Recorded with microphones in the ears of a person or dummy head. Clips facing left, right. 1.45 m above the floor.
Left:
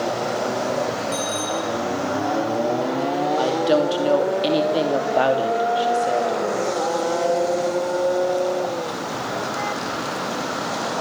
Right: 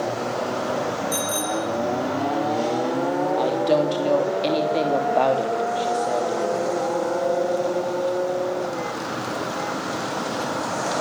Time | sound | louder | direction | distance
1.1 | a bicycle bell | even | 40° right (ahead or behind) | 3 m
3.4 | a woman speaking | left 2 dB | 5° left (ahead or behind) | 2.5 m